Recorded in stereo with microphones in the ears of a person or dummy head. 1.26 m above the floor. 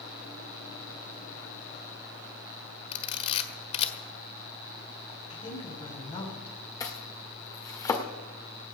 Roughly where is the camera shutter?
Left.